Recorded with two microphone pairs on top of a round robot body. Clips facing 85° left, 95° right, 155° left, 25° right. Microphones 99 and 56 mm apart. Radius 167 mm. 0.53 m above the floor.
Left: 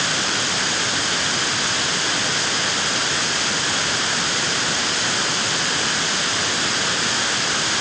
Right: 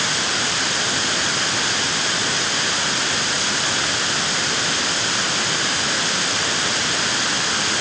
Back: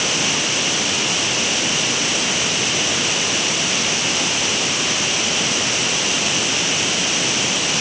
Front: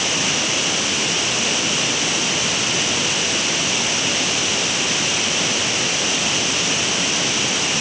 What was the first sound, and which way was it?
Only background noise.